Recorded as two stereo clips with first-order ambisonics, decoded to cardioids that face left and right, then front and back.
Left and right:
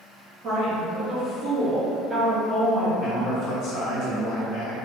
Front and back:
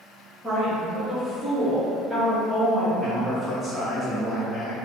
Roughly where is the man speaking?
Left.